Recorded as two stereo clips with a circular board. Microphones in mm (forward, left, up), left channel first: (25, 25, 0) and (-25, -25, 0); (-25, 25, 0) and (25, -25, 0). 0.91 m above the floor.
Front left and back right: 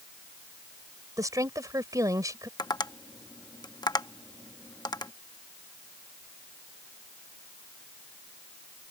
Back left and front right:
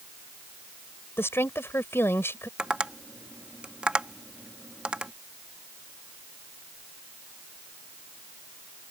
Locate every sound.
1.2 s a woman speaking: 170° right
2.6 s tapping: 30° left